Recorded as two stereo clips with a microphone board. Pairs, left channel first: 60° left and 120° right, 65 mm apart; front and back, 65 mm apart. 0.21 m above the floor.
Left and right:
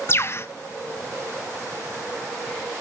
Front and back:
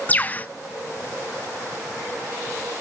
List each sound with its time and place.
0.1 s a bird: 45° left, 0.6 m